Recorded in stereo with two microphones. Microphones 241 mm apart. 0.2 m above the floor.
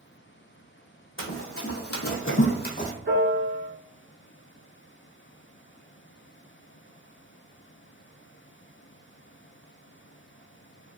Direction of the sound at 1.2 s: 60° left (ahead or behind).